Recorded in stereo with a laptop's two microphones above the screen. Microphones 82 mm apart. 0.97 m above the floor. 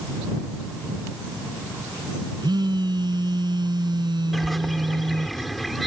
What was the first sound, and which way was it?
A phone buzzing, 70° right (ahead or behind).